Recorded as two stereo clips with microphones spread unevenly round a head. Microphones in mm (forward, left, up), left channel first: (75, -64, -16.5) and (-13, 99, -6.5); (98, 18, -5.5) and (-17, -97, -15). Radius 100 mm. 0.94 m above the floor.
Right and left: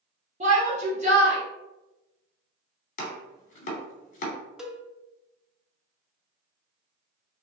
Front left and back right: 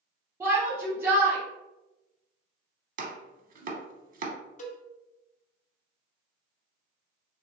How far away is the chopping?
About 0.8 m.